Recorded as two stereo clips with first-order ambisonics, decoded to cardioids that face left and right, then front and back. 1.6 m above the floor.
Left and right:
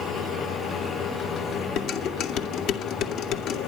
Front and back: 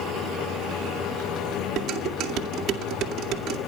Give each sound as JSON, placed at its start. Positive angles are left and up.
{"t": 1.8, "sound": "dishes clattering", "azimuth_deg": 135, "distance_m": 2.0}